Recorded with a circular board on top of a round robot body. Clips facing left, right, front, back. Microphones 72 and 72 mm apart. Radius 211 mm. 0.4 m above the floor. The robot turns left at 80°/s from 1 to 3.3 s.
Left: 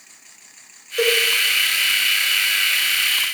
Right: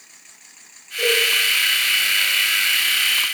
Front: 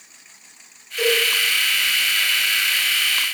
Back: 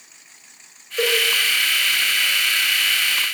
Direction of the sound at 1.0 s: 120° left.